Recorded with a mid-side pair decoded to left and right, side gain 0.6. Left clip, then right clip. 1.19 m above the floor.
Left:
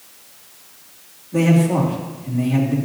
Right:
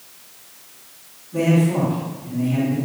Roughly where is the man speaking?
Ahead left.